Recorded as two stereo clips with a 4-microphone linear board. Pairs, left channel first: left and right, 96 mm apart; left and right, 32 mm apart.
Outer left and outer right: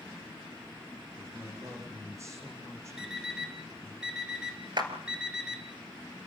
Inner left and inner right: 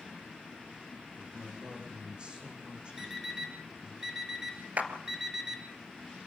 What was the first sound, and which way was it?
A man speaking, 30° right (ahead or behind).